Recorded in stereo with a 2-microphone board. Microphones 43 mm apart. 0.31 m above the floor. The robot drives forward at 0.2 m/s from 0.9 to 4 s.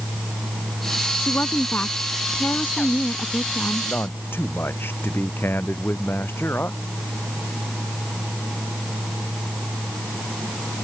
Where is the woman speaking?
50° left (ahead or behind); by 3.9 s 55° left (ahead or behind).